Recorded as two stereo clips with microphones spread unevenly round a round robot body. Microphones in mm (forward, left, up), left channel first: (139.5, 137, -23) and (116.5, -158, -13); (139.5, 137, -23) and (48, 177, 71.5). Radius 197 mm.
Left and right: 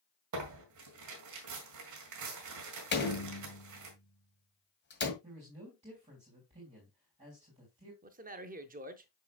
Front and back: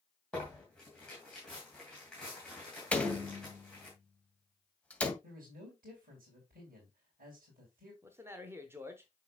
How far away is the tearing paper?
About 2 m.